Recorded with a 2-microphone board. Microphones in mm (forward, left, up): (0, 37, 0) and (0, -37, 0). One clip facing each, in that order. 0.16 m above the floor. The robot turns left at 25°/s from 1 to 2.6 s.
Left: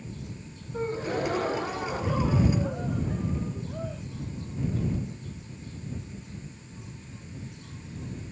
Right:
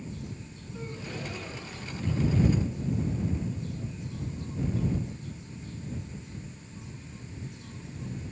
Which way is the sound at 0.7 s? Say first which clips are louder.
Left 10 dB; 135° left.